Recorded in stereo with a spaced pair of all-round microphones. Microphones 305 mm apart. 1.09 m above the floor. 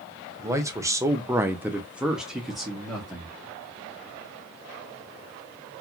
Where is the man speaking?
10° right (ahead or behind), 0.7 m; by 3.3 s centre (ahead or behind), 1.1 m.